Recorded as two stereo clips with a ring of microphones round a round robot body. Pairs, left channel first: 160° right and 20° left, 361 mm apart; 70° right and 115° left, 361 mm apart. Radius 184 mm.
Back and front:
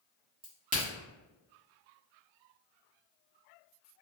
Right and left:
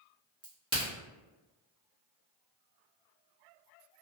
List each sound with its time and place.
0.4 s a crack: 55° left, 1.3 m